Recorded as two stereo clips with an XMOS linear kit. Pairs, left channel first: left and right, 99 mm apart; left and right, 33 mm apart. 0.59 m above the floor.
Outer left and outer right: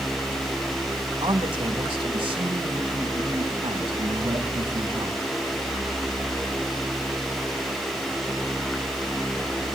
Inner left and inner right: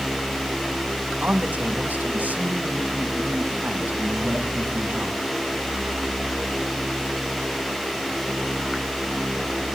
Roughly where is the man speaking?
Right.